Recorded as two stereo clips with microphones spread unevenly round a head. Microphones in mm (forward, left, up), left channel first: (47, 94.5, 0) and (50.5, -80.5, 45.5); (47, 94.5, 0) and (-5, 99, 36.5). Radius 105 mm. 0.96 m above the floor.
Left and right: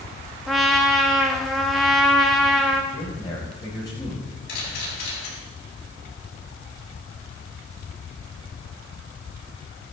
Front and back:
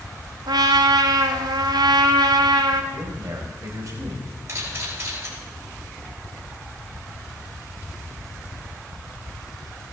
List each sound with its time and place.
0.5 s a trumpet: 175° left, 1.2 m
2.9 s a man speaking: 165° left, 5 m
4.5 s a camera shutter: 135° left, 8 m